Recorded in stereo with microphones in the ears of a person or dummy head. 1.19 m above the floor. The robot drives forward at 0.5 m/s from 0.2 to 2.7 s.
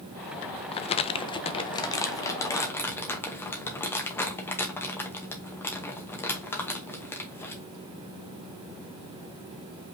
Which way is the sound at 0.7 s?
30° left (ahead or behind).